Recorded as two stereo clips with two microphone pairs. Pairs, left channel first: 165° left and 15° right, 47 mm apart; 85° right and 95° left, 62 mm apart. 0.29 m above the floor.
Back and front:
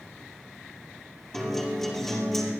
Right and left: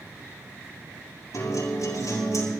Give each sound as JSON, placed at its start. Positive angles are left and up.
{"t": 1.3, "sound": "a guitar", "azimuth_deg": -110, "distance_m": 5.5}